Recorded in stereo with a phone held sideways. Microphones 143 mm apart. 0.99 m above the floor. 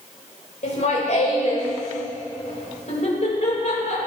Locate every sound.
0.6 s laughter: 55° left (ahead or behind), 4 m